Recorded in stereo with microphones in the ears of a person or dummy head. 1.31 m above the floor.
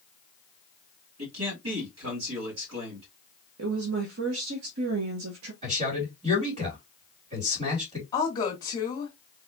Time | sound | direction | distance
1.2 | a man speaking | 85° right | 2.5 m
3.6 | a woman speaking | 75° right (ahead or behind) | 1.2 m
5.6 | a man speaking | 35° right (ahead or behind) | 3 m
8.1 | a woman speaking | 25° left (ahead or behind) | 1.4 m